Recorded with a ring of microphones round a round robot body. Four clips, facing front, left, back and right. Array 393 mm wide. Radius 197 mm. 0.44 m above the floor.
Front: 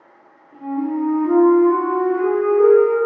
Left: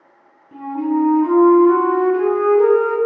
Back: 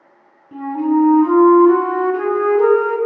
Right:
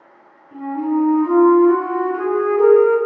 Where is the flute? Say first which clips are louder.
Even, back 6 dB; straight behind, 2.5 m.